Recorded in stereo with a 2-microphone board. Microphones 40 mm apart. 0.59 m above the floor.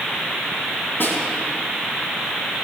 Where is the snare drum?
65° left (ahead or behind), 5.5 m.